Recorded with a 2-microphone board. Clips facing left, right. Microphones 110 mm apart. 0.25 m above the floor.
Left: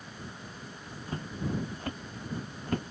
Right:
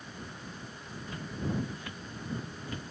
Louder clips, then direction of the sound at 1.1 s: Left 1 dB; 35° left (ahead or behind).